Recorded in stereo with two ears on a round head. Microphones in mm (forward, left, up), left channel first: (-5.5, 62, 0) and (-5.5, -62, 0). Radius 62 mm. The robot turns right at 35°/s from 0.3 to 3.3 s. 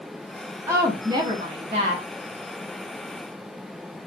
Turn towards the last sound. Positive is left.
turn(degrees=-65)